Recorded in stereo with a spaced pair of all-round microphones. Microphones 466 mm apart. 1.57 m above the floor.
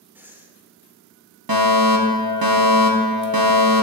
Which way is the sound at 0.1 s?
5° right (ahead or behind).